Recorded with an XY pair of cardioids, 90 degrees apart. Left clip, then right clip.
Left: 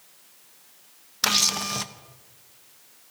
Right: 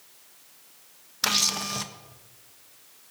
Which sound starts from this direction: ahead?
A camera shutter, at 1.2 s.